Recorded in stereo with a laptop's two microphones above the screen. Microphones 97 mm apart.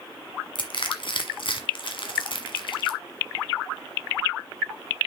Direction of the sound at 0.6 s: 60° left (ahead or behind).